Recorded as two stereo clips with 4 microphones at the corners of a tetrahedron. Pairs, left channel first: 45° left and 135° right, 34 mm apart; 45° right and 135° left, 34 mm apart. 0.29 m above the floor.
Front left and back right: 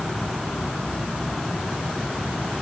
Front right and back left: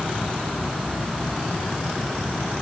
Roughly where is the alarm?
No alarm in this recording.